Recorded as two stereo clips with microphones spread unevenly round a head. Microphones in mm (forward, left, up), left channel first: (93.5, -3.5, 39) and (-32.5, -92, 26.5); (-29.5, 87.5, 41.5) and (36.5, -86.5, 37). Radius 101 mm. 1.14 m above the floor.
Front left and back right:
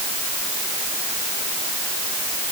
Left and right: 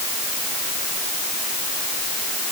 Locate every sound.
Only background noise.